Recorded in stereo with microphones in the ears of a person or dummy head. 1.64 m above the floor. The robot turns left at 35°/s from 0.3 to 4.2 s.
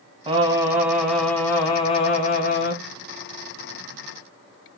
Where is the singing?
145° right, 1.8 m; by 2.8 s 130° left, 1.8 m.